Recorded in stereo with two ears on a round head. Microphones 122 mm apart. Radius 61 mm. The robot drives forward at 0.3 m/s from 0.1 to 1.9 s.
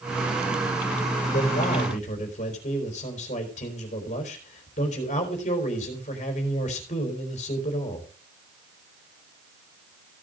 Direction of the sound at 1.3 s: 60° left (ahead or behind).